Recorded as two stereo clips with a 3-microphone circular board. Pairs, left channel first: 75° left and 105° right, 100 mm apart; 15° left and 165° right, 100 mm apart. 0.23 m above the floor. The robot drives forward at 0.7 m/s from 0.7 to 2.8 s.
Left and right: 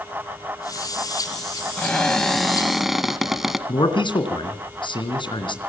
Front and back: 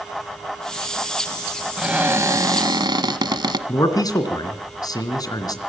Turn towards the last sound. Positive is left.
turn(degrees=55)